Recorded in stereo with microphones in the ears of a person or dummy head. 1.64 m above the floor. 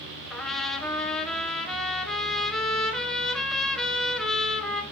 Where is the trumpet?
5° left (ahead or behind), 1.4 m.